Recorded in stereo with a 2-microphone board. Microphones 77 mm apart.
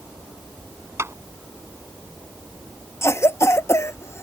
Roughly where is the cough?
Left.